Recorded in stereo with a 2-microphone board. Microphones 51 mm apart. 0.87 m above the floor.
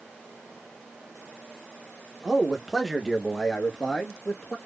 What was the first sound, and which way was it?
A man speaking, 15° right (ahead or behind).